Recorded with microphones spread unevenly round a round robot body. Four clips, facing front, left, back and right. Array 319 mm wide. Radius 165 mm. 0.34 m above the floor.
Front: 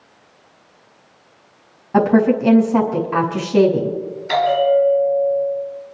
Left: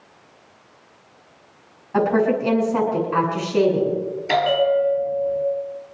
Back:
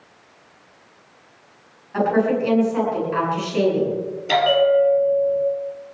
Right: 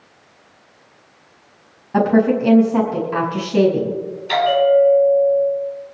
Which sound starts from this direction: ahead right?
A woman speaking, at 1.9 s.